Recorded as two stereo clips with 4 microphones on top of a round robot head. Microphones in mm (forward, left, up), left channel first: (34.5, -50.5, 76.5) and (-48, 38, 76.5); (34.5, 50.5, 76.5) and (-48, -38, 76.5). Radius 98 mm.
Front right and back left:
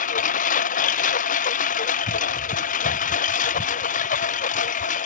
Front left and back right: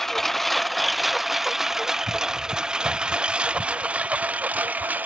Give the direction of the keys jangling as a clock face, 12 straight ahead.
No keys jangling in this recording.